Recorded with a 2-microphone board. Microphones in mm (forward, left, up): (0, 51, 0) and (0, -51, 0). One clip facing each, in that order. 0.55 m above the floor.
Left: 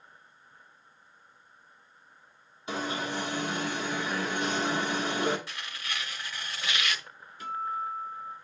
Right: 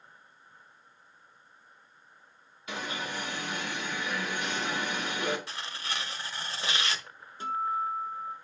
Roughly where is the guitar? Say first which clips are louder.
Right 3 dB; right.